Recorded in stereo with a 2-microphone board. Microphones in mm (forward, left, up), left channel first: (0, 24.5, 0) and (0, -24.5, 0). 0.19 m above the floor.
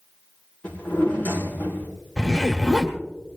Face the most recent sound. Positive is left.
turn(degrees=10)  # may be behind; listen again after turning